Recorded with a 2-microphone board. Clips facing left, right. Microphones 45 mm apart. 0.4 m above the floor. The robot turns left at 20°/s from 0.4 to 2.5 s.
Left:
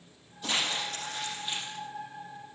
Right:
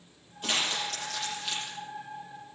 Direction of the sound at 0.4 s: 55° right (ahead or behind).